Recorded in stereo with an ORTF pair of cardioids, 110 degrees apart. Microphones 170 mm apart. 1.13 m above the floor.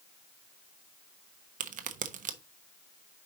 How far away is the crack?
About 1.0 m.